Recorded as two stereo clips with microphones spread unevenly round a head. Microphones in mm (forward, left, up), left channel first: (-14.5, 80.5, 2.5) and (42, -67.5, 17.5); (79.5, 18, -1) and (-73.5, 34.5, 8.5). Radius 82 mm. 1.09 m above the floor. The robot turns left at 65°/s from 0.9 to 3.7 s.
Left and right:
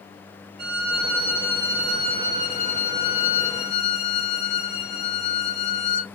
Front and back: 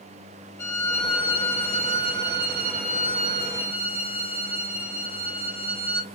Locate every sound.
0.6 s a violin: 85° right, 0.7 m; by 6.0 s 95° left, 0.7 m